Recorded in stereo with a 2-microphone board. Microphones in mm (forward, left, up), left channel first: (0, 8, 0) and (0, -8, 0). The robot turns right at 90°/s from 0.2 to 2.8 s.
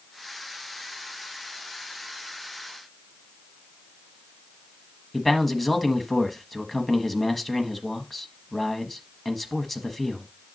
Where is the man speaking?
Centre (ahead or behind), 1.2 m.